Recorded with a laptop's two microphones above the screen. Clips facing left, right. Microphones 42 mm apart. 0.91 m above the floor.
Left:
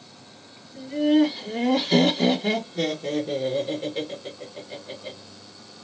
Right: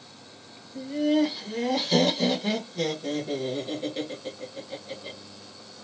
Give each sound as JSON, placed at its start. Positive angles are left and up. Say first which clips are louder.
{"t": 0.8, "sound": "laughter", "louder": "left 4 dB", "side_deg": 10, "distance_m": 1.1}